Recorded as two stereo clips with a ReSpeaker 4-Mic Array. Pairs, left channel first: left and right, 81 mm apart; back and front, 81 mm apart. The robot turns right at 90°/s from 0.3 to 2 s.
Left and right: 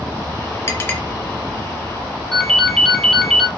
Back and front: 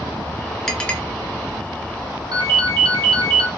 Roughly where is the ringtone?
Ahead.